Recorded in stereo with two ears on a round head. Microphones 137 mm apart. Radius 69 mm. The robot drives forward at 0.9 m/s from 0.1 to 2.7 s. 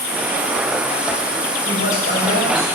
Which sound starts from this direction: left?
A man speaking, at 1.6 s.